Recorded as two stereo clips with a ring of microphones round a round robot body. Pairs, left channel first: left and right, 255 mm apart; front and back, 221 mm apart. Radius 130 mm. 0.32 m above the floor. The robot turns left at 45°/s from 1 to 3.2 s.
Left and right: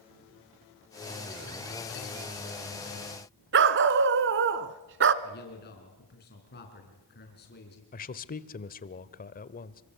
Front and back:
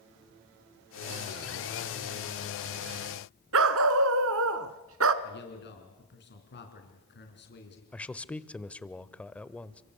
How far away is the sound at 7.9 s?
About 1.2 m.